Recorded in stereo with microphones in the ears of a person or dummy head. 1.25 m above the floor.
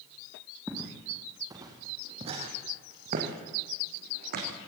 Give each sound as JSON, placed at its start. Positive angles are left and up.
{"t": 0.7, "sound": "footsteps", "side_deg": 0, "distance_m": 3.0}